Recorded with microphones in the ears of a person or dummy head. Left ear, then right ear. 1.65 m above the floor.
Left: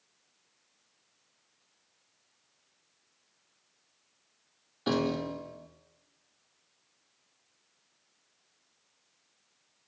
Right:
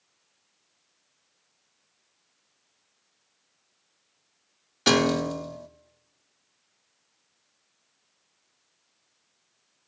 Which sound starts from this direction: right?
A piano, at 4.9 s.